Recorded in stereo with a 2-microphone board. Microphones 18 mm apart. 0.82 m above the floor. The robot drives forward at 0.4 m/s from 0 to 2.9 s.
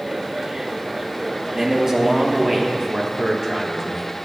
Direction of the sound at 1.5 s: 20° right (ahead or behind).